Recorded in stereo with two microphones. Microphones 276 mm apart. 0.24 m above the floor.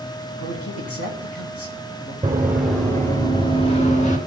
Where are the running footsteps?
15° right (ahead or behind), 1.4 m; by 4.2 s 25° left (ahead or behind), 2.5 m.